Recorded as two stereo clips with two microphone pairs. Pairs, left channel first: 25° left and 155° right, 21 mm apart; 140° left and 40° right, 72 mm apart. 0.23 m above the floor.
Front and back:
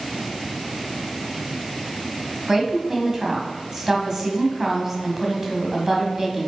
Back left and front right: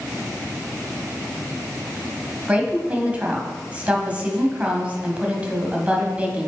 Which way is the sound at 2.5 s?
95° right.